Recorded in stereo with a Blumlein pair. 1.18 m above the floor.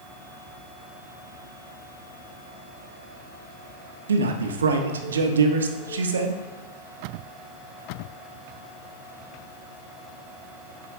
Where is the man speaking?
65° right, 1.0 m.